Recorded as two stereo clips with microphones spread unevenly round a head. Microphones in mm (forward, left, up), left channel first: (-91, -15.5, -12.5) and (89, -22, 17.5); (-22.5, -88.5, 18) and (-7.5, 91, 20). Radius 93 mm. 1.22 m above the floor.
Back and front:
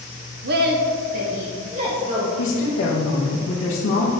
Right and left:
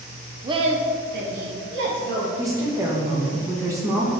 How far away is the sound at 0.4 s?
About 0.7 m.